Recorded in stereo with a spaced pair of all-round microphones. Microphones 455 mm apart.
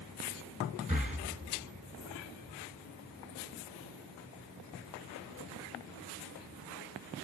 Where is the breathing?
15° right (ahead or behind), 1.9 m.